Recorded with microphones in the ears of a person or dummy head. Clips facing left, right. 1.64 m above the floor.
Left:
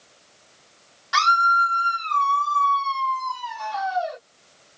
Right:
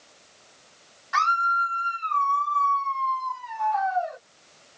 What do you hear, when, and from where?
1.1 s a scream: 55° left (ahead or behind)